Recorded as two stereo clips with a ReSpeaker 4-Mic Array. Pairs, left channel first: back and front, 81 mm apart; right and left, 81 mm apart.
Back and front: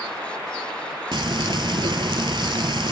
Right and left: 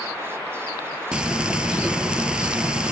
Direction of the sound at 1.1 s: 10° left.